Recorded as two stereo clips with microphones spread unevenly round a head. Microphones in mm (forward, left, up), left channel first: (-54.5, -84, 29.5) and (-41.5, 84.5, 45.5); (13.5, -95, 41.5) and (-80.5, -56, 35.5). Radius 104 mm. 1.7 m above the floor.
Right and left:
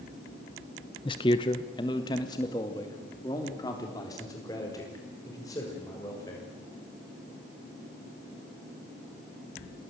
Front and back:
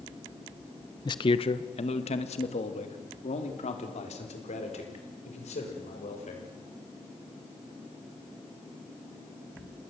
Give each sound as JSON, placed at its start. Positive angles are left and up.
{"t": 1.1, "sound": "a man speaking", "azimuth_deg": -30, "distance_m": 0.8}